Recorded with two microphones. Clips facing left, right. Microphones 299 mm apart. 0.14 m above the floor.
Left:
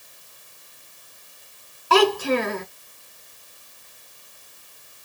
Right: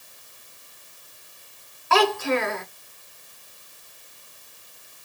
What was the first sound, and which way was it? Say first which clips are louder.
A child speaking: left 3 dB; 40° left (ahead or behind).